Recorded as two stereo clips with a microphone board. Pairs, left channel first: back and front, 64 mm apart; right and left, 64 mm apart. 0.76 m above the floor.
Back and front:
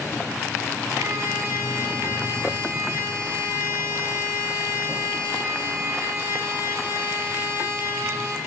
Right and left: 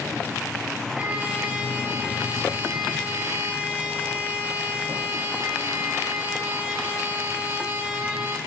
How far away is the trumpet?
About 1.8 m.